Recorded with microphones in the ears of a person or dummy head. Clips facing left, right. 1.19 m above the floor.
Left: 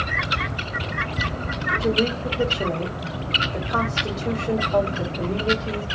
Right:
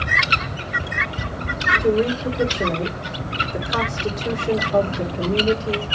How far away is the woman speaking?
About 3.5 m.